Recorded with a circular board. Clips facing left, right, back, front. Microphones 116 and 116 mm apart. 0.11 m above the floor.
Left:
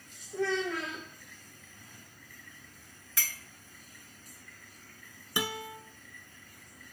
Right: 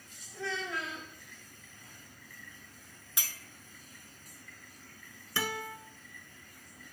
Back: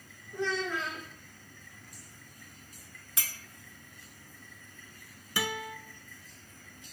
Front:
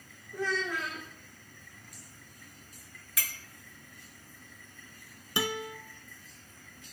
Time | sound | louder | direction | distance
0.3 | a child speaking | left 7 dB, back 1 dB | 80° left | 4.5 m
3.2 | a clink | left 3 dB, front 1 dB | 145° right | 0.9 m
5.4 | a guitar | left 1 dB, front 2 dB | 35° left | 0.6 m